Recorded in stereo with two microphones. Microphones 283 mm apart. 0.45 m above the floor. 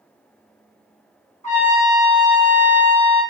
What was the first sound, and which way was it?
A trumpet, 25° left (ahead or behind).